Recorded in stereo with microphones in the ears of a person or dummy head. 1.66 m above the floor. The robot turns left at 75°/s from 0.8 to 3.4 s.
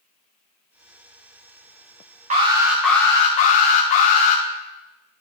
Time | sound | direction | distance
2.3 | an alarm | 145° right | 1.5 m